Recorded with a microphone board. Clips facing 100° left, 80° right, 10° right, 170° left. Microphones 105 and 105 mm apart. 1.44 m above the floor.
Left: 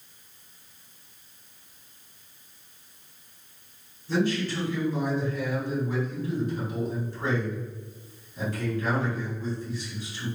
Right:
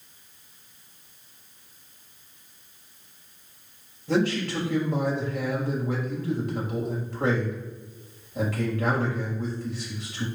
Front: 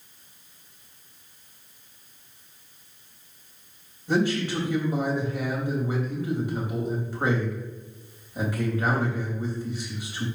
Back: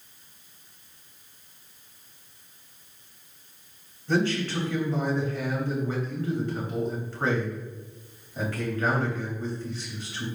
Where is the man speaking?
85° right, 3 m.